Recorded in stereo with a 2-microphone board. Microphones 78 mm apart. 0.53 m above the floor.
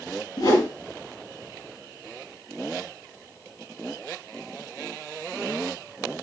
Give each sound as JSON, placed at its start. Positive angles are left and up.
{"t": 0.4, "sound": "a whoosh", "side_deg": 55, "distance_m": 7.5}